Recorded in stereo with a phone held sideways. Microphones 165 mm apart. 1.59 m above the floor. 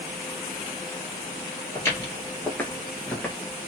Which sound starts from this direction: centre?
Footsteps, at 1.8 s.